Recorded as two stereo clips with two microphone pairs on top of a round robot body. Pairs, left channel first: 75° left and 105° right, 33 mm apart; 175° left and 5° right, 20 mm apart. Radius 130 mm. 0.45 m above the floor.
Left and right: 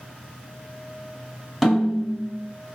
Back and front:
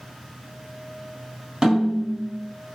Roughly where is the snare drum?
Ahead.